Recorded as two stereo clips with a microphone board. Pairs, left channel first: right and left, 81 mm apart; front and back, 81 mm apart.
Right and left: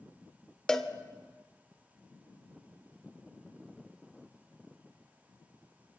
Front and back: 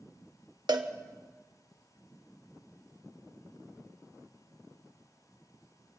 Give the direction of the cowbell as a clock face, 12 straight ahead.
6 o'clock.